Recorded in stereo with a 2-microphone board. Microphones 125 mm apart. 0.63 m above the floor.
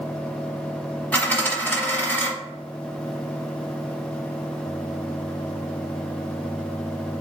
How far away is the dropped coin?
About 1.0 m.